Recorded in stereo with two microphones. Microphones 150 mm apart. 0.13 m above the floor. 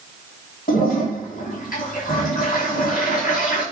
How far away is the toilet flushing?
About 5 m.